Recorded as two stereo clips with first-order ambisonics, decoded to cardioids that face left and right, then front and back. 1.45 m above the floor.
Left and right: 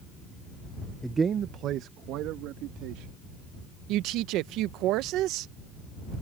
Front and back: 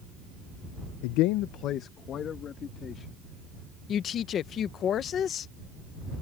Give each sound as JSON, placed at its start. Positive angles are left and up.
{"t": 1.0, "sound": "a man speaking", "azimuth_deg": 0}
{"t": 3.9, "sound": "a woman speaking", "azimuth_deg": -55}